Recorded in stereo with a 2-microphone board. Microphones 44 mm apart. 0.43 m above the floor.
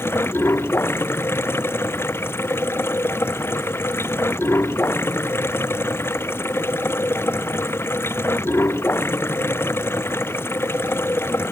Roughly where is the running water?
Left.